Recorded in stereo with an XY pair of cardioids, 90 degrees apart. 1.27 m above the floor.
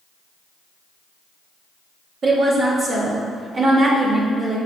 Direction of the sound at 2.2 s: 55° right.